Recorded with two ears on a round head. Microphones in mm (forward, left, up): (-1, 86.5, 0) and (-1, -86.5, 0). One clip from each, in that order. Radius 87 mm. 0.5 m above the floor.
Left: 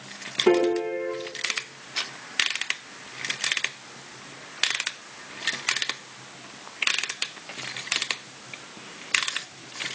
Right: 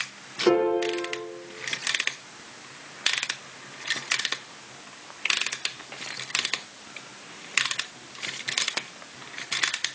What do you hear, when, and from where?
0.5 s a piano: 15° right (ahead or behind), 5 m